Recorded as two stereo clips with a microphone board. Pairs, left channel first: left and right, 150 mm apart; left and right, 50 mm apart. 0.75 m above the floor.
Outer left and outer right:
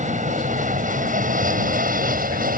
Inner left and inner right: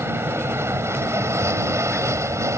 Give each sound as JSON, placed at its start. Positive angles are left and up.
{"t": 0.0, "sound": "an aircraft", "side_deg": -55}